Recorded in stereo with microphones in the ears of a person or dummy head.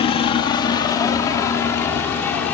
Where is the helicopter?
30° left (ahead or behind); by 2.5 s 10° left (ahead or behind).